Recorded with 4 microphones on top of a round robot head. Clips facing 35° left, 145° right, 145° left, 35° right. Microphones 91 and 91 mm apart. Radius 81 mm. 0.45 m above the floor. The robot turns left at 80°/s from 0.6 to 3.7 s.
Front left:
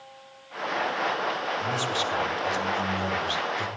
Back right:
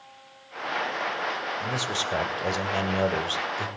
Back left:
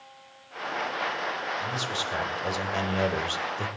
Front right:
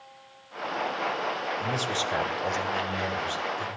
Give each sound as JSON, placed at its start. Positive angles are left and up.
{"t": 1.6, "sound": "a man speaking", "azimuth_deg": -60, "distance_m": 2.5}